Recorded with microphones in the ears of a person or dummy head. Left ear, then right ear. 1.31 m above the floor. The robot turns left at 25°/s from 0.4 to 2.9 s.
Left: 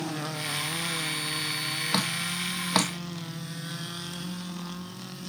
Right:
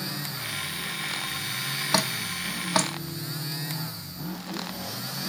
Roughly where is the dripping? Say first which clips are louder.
Right 5 dB; centre.